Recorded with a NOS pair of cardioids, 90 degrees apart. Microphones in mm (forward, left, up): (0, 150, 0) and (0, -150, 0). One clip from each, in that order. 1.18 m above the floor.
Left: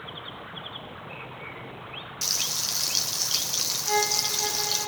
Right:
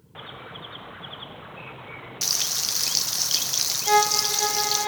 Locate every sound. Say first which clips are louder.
2.2 s frying: right 2 dB; 20° right, 1.7 m
3.9 s a violin: right 6 dB; 65° right, 4.5 m